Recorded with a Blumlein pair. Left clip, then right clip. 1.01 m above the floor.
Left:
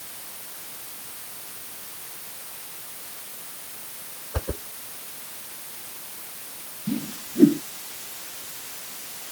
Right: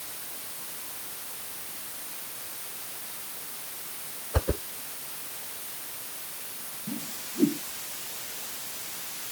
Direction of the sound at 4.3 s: 10° right.